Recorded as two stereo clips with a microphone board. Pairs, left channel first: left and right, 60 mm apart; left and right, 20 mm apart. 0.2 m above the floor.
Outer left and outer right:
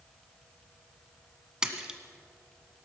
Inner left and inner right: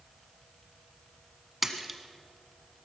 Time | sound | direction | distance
1.6 | a splash | 10° right (ahead or behind) | 1.3 m